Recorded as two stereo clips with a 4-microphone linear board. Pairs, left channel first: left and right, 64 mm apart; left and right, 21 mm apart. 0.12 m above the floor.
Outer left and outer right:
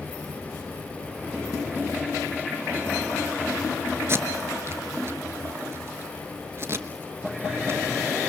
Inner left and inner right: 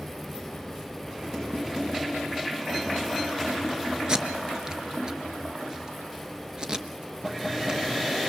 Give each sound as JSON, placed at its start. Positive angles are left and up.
{"t": 4.1, "sound": "tape being pulled", "side_deg": -40, "distance_m": 1.3}